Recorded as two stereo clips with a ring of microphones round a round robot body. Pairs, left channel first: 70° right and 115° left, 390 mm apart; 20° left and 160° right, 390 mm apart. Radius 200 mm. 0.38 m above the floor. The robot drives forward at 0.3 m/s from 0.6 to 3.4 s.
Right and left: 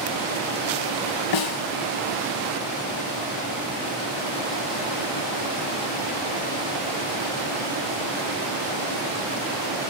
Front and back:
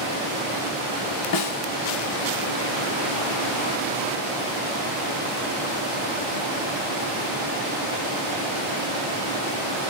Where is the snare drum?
30° right, 0.9 m; by 1.6 s 35° right, 0.8 m.